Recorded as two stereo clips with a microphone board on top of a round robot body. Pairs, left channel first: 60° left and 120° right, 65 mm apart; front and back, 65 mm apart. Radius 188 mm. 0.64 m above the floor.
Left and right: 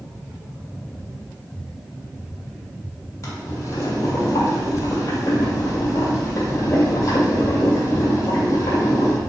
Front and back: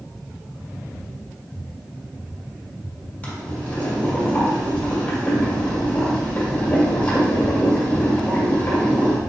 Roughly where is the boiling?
Ahead left.